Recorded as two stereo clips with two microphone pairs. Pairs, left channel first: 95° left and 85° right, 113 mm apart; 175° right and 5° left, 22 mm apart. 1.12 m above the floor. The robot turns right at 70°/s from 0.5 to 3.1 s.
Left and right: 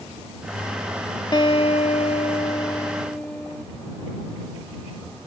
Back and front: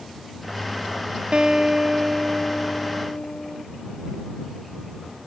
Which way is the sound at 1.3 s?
50° left.